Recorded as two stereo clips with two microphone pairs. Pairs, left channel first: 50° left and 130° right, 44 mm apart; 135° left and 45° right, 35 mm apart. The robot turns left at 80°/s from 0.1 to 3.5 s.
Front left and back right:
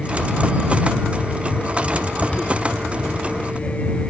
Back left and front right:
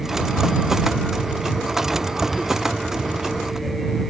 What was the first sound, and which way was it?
Only background noise.